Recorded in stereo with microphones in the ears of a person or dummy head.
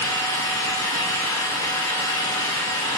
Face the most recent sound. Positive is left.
turn(degrees=25)  # may be behind; listen again after turning